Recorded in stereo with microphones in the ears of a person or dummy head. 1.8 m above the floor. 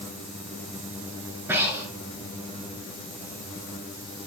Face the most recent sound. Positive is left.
turn(degrees=-10)  # may be behind; listen again after turning